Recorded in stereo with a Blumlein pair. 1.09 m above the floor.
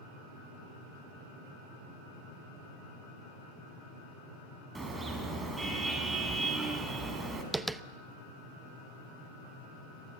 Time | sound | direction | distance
4.8 | a car horn | 10° right | 5 m
7.5 | tapping | 5° right | 0.7 m